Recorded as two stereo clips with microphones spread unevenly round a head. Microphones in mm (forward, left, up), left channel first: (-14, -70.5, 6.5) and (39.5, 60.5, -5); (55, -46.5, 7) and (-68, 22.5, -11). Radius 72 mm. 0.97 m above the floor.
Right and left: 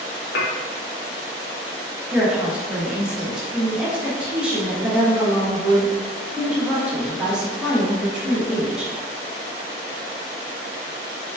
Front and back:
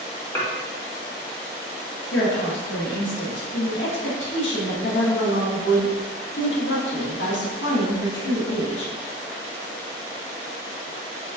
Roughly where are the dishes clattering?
Right.